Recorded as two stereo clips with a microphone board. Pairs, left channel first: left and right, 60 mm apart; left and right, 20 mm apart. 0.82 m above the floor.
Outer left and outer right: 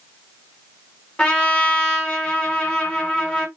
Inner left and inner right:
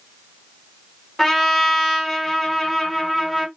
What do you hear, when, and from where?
1.2 s a trumpet: 15° left (ahead or behind), 1.5 m